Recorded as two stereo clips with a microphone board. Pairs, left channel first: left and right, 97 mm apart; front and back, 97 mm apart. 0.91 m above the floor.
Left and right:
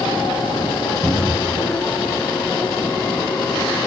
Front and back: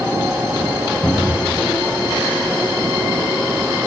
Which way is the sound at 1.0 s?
75° right.